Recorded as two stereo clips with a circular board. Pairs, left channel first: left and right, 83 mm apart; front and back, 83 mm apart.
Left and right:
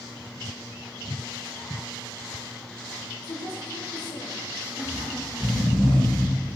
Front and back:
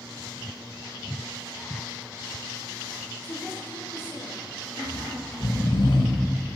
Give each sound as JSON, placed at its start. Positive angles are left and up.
{"t": 3.2, "sound": "a woman speaking", "azimuth_deg": 60, "distance_m": 6.5}
{"t": 4.8, "sound": "snoring", "azimuth_deg": 15, "distance_m": 2.5}